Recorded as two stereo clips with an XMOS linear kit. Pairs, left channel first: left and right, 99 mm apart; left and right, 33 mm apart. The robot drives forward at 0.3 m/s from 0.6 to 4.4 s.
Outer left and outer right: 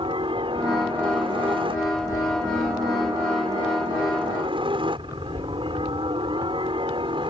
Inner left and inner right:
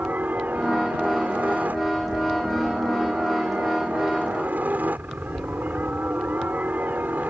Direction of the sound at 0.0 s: 60° right (ahead or behind).